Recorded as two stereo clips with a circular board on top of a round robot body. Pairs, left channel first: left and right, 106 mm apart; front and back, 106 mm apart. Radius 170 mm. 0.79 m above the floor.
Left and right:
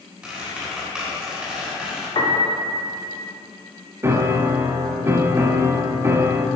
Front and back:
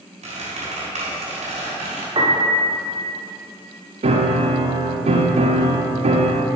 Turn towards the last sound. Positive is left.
turn(degrees=-155)